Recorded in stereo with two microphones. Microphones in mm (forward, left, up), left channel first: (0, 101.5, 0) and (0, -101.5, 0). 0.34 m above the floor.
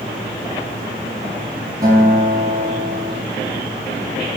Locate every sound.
1.8 s a guitar: 20° right (ahead or behind), 8.5 m